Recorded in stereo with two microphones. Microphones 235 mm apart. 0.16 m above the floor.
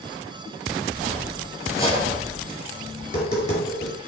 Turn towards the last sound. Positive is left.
turn(degrees=30)  # may be behind; listen again after turning